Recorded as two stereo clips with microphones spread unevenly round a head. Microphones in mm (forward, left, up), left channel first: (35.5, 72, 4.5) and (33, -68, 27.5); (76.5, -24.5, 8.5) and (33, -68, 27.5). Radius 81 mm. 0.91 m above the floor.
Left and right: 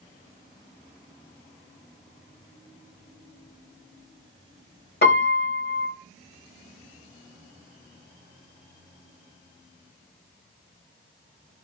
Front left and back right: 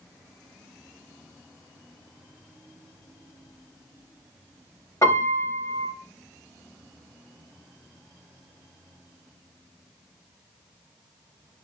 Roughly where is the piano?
Behind left.